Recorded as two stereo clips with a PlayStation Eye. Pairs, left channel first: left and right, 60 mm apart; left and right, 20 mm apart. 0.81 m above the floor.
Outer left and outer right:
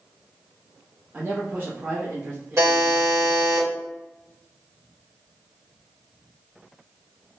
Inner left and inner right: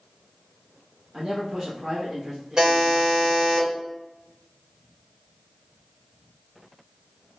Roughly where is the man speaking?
Right.